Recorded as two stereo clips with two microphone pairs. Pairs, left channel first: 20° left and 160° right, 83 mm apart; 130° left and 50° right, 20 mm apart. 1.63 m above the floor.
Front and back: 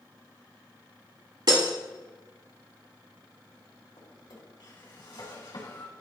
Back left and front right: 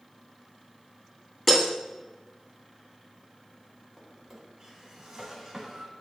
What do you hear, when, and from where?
1.5 s breaking glass: 145° right, 1.9 m
4.0 s a drawer: 25° left, 3.5 m